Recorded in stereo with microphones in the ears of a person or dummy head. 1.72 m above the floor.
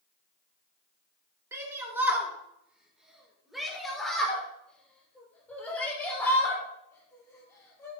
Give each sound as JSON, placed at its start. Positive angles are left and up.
{"t": 1.5, "sound": "a shout", "side_deg": -15, "distance_m": 4.5}